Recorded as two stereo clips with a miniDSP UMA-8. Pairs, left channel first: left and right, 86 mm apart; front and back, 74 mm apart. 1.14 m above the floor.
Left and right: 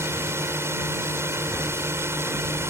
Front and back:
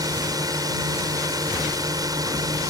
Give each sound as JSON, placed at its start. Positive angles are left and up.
{"t": 0.0, "sound": "a drone", "azimuth_deg": -150}